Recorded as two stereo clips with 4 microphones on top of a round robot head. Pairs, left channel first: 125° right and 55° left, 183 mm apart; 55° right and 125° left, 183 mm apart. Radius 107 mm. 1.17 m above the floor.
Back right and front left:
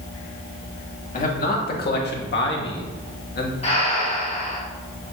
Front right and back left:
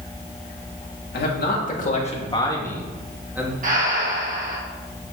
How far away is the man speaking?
About 2 m.